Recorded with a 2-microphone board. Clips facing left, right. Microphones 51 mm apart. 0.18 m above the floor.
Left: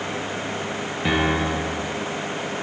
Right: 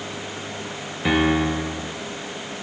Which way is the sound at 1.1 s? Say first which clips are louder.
Right 2 dB; 5° right (ahead or behind).